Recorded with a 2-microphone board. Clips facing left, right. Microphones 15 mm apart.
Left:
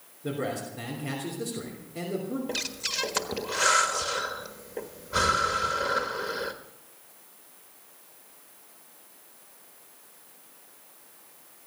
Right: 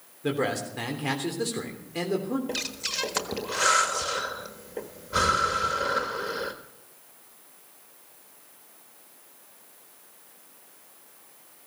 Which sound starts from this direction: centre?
Breathing, at 2.5 s.